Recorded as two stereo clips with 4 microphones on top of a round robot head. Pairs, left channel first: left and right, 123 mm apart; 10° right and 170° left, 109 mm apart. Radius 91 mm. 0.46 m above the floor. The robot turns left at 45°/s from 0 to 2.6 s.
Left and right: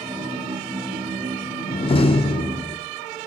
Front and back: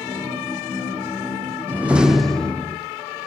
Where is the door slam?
105° left, 0.6 m; by 2.8 s 60° left, 0.6 m.